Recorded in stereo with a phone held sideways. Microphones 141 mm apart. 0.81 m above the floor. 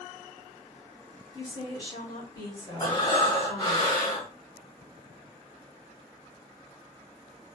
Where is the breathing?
30° left (ahead or behind), 1.1 m.